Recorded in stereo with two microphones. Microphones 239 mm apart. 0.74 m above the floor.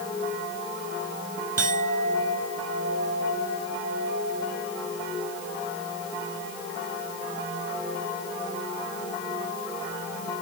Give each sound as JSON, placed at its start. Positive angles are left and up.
{"t": 1.6, "sound": "a clink", "side_deg": -80}